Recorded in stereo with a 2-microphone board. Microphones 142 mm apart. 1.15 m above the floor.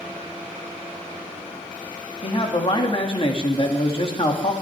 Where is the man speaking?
40° left (ahead or behind), 2.5 m.